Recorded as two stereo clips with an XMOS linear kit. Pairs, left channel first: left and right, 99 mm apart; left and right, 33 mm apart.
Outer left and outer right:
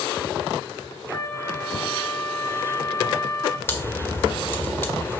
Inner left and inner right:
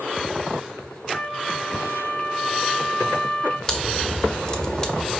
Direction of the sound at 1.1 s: 35° left (ahead or behind).